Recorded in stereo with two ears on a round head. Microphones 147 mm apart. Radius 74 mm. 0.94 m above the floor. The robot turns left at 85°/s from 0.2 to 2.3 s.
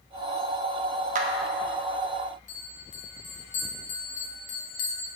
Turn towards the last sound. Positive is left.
turn(degrees=45)  # may be behind; listen again after turning